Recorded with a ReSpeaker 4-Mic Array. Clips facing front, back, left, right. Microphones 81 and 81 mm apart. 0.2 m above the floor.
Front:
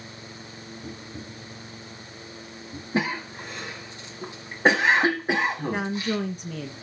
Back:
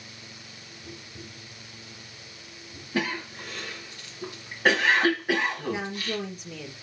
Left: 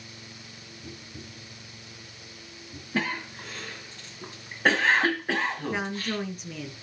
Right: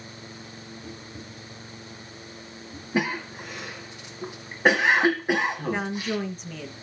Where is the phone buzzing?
No phone buzzing in this recording.